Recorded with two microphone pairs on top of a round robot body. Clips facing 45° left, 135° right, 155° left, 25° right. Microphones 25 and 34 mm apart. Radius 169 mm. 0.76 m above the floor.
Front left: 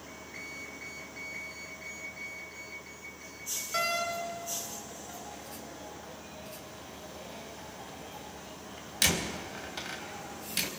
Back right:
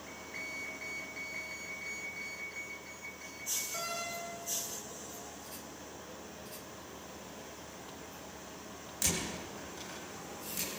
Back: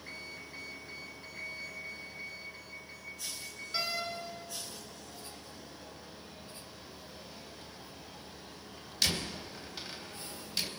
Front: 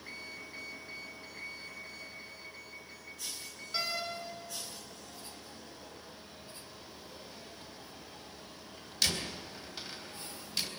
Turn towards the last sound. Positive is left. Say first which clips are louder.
# front left 8 dB, even
turn(degrees=65)